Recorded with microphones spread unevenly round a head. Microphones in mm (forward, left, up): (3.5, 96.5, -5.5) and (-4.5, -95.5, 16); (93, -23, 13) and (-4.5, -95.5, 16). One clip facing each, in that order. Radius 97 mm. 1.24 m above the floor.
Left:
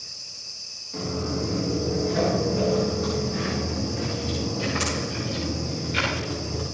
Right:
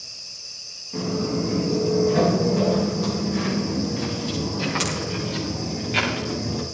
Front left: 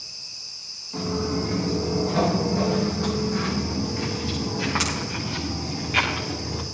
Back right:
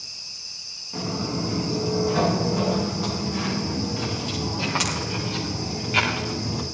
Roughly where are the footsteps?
Ahead right.